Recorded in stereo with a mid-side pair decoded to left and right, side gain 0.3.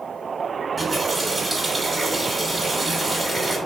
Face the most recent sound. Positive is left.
turn(degrees=-35)